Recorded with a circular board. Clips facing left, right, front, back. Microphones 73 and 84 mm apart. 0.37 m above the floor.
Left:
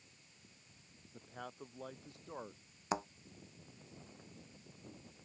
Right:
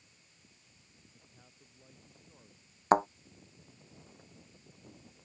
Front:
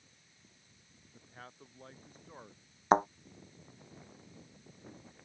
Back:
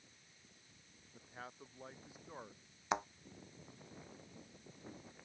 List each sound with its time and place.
1.1 s a man speaking: 95° left
2.9 s a thud: 50° right